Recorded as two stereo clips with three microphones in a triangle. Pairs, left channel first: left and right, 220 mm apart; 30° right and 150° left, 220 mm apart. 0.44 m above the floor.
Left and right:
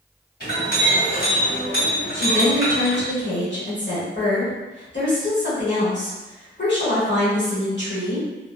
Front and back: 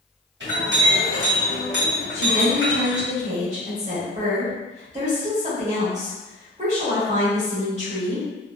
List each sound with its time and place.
0.4 s a clink: 130° left, 1.7 m
2.1 s a woman speaking: 100° left, 1.4 m